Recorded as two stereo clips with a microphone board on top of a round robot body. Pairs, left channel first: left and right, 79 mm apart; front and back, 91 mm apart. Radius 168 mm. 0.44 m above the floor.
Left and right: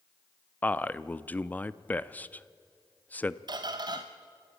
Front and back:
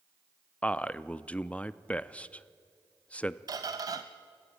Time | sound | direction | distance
0.6 | a man speaking | 55° left | 0.7 m
3.5 | a squeak | 130° right | 0.5 m